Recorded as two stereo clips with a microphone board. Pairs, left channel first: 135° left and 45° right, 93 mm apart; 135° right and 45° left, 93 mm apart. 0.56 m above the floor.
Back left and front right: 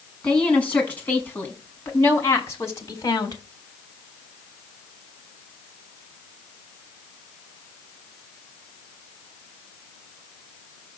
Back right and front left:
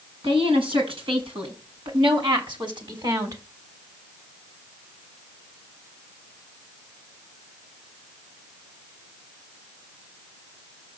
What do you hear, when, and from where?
0.2 s a woman speaking: 60° left, 5.5 m; by 3.4 s 90° left, 3.5 m